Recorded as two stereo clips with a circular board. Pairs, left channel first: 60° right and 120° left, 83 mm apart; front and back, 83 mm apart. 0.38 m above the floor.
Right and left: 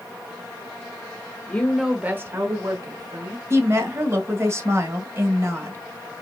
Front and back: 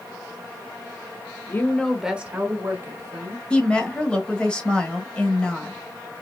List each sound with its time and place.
1.5 s a woman speaking: 15° right, 0.9 m; by 3.4 s 140° left, 1.8 m
3.5 s a woman speaking: 75° left, 1.5 m